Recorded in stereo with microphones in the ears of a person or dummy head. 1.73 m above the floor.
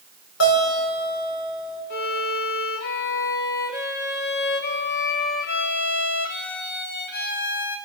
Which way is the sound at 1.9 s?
60° left (ahead or behind).